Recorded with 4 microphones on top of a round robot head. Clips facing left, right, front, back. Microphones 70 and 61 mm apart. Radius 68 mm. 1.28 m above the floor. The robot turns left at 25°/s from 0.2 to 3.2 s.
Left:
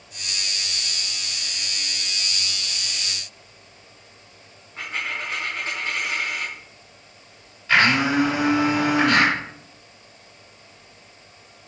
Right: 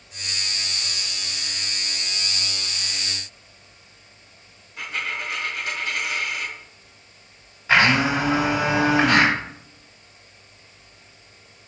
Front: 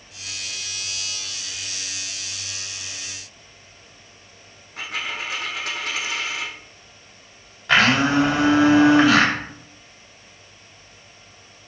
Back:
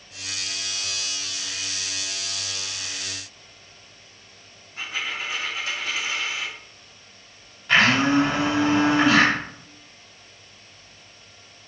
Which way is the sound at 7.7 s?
15° right.